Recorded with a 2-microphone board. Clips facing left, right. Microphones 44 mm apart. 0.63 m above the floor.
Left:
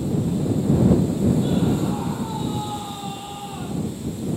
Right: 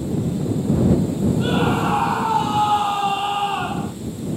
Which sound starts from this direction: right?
A scream, at 1.4 s.